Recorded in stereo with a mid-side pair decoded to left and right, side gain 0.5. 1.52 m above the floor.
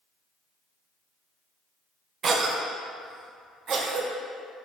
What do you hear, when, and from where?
2.2 s a cough: 50° right, 0.5 m